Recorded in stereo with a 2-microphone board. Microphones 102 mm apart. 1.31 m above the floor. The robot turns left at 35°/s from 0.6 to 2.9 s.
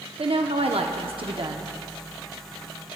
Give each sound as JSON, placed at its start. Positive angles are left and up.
{"t": 0.2, "sound": "a woman speaking", "azimuth_deg": -90, "distance_m": 0.8}